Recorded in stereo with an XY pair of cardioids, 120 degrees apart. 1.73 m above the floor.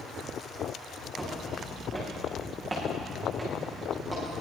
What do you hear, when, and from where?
1.2 s footsteps: 20° right, 8 m